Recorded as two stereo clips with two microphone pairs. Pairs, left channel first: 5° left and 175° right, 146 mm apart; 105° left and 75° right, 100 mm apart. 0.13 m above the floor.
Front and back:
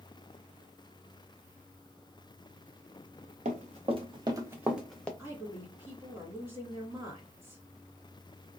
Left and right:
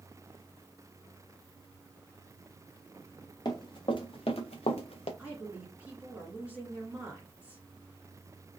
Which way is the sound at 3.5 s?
155° left.